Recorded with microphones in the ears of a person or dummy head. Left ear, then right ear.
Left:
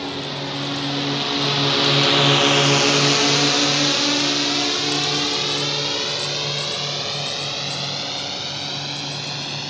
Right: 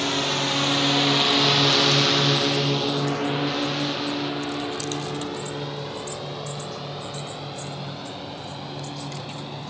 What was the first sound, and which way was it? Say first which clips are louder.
A drone: right 4 dB; 35° right (ahead or behind).